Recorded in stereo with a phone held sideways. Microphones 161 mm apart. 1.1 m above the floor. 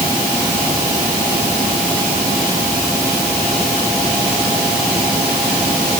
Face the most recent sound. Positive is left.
No sound to turn to.